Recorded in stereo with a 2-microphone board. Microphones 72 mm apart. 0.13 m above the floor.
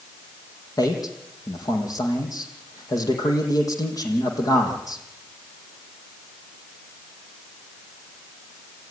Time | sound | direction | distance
0.8 | a man speaking | 60° left (ahead or behind) | 5.5 m